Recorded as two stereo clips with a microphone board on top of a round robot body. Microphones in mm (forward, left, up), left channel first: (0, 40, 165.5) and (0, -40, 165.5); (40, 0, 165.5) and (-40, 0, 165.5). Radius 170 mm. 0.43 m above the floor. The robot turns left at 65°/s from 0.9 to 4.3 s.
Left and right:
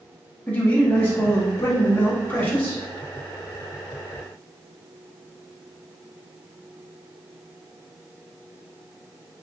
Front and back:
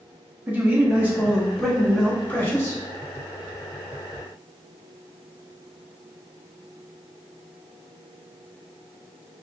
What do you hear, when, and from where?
0.5 s a man speaking: 140° left, 1.5 m; by 2.8 s 20° left, 1.5 m